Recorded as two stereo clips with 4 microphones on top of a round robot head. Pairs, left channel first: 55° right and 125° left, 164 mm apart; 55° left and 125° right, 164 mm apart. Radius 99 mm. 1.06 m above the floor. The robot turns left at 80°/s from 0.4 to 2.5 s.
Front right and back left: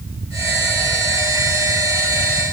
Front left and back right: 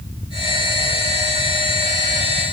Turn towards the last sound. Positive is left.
No sound to turn to.